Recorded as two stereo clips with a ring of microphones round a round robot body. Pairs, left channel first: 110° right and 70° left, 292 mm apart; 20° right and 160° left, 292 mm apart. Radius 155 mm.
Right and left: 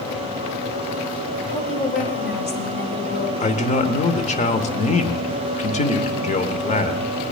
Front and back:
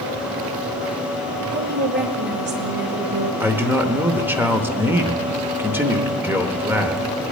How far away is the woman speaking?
About 1.5 m.